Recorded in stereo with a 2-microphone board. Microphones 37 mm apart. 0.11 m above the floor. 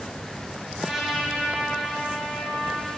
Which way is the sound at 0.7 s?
10° right (ahead or behind).